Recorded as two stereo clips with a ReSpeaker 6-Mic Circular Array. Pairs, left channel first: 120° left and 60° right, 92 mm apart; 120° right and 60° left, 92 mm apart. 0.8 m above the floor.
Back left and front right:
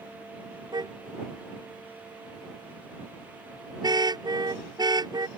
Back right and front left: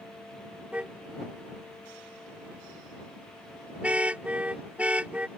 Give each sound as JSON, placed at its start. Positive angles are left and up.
{"t": 0.7, "sound": "a car horn", "azimuth_deg": -15}